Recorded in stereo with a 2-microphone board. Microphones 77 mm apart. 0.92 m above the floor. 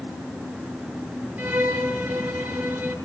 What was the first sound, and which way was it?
A violin, 20° right (ahead or behind).